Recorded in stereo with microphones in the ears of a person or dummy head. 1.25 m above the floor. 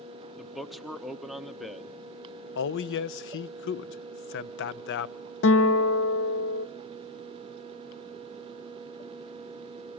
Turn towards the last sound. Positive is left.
turn(degrees=55)  # may be behind; listen again after turning